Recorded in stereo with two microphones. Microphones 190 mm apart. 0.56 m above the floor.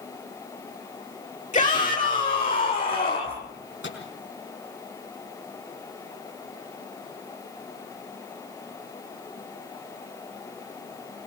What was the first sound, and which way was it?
A shout, 40° left (ahead or behind).